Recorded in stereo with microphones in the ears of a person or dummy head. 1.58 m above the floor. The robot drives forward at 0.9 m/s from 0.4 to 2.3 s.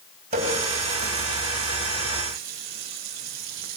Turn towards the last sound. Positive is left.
turn(degrees=-50)  # may be behind; listen again after turning